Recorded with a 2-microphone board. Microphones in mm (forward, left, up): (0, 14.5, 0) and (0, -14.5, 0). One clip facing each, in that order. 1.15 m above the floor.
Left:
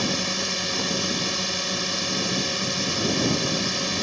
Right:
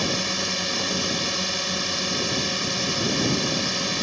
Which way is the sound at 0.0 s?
Centre (ahead or behind).